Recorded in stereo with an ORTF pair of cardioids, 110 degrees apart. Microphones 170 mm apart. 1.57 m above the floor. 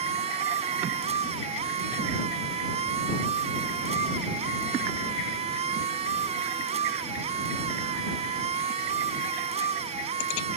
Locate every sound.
0.0 s a machine running: 40° right